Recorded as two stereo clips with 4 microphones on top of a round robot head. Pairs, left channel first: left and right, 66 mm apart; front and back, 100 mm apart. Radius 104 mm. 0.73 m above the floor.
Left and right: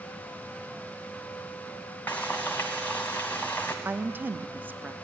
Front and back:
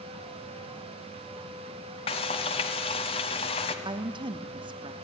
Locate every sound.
2.1 s frying: 15° left, 0.7 m
3.9 s a woman speaking: 150° right, 0.9 m